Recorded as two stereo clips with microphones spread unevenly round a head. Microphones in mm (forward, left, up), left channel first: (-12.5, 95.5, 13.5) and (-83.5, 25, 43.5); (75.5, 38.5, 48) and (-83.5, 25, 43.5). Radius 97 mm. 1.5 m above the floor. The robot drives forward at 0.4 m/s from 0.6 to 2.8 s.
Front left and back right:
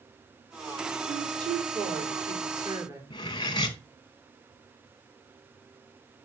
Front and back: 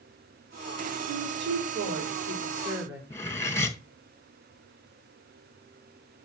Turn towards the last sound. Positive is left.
turn(degrees=50)